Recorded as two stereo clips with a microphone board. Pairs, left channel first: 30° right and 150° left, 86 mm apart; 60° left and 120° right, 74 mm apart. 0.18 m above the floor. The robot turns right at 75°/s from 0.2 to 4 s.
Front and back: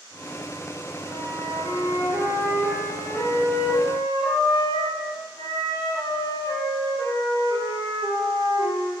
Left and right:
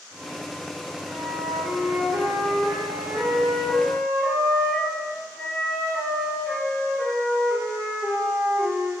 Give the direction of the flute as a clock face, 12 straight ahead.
8 o'clock.